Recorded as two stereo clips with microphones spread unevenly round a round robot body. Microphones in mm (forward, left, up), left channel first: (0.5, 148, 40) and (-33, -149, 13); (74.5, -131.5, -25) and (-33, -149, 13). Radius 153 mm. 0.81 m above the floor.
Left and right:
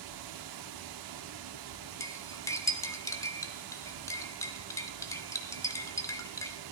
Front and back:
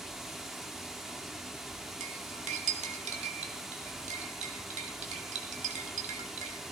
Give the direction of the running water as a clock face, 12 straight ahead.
3 o'clock.